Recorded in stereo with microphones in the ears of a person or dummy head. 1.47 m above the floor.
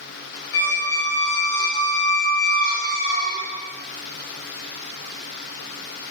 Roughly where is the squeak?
Left.